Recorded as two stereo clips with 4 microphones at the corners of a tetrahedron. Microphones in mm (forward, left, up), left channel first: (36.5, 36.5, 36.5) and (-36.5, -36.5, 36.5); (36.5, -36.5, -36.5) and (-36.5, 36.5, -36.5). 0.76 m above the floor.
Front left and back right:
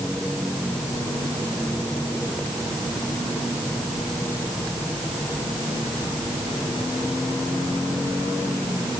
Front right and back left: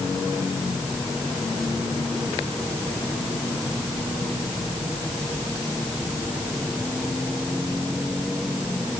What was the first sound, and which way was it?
Only background noise.